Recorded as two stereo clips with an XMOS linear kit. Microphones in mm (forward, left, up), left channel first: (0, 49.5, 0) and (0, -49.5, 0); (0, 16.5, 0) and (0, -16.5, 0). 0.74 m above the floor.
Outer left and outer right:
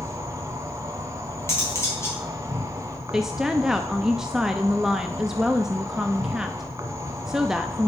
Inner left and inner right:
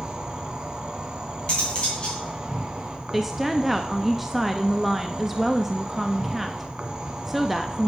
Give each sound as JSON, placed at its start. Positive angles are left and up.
{"t": 0.0, "sound": "an insect", "side_deg": -30, "distance_m": 1.3}
{"t": 1.5, "sound": "cutlery clinking", "side_deg": 30, "distance_m": 3.0}
{"t": 3.1, "sound": "a woman speaking", "side_deg": -5, "distance_m": 0.6}